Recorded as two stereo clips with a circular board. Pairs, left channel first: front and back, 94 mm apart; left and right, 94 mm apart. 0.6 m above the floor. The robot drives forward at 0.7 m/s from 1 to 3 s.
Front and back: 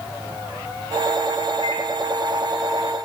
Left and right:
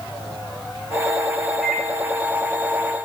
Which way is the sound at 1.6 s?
5° right.